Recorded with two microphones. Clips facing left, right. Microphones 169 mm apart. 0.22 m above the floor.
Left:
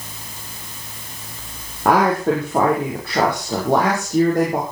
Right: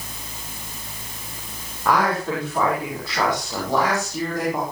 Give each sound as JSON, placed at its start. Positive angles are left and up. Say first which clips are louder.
{"t": 1.9, "sound": "a woman speaking", "louder": "left 5 dB", "side_deg": 55, "distance_m": 7.5}